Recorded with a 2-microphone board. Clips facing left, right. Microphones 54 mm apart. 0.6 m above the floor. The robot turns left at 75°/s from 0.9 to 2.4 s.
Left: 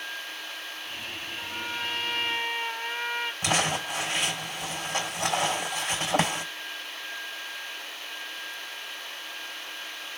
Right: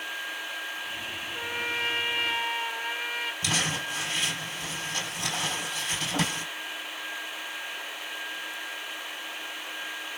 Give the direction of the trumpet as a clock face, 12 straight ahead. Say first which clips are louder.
Right 4 dB; 4 o'clock.